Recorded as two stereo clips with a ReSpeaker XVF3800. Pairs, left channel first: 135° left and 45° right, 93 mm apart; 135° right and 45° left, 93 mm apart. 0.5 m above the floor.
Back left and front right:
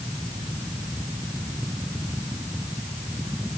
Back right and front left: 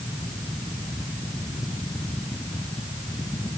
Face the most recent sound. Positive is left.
No sound to turn to.